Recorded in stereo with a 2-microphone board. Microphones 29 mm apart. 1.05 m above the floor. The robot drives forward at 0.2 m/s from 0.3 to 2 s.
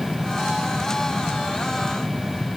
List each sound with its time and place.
Only background noise.